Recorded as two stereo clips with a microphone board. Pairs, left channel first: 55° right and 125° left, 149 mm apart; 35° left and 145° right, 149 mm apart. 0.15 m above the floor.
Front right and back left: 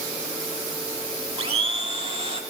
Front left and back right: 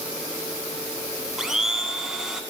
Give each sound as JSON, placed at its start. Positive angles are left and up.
{"t": 1.4, "sound": "a blender", "azimuth_deg": 130, "distance_m": 0.6}